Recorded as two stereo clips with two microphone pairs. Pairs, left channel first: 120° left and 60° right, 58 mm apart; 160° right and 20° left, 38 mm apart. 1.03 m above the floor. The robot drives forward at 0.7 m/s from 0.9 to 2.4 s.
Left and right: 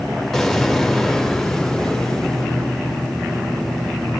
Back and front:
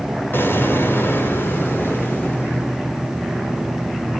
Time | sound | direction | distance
0.3 | an explosion | 155° right | 3.5 m